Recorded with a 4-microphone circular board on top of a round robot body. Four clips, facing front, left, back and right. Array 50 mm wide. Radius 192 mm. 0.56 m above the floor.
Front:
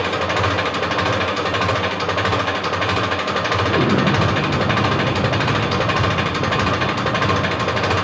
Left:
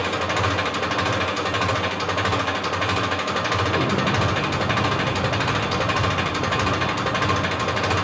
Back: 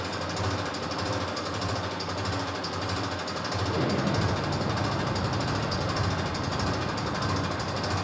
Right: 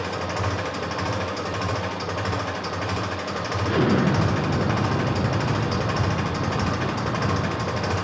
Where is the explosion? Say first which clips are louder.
Right 1 dB, front 9 dB; 40° right, 4 m.